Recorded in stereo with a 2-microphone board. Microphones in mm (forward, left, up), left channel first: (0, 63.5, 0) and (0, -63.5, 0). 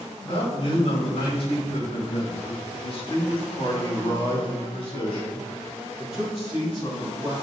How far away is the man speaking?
About 5.5 m.